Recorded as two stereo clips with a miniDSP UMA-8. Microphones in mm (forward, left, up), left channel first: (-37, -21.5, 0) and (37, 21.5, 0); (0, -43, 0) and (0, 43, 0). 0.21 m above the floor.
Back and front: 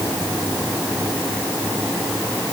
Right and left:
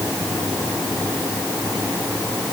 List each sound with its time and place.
Only background noise.